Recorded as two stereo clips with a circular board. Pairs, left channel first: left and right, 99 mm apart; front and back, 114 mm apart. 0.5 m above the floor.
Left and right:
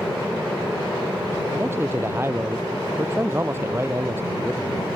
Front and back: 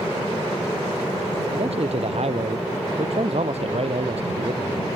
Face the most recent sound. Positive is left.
turn(degrees=-155)